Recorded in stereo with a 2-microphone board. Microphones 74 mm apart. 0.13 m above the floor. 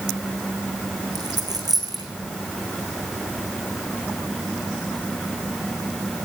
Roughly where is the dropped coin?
Right.